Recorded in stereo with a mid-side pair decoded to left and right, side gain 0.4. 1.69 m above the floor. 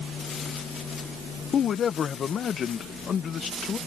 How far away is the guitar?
No guitar in this recording.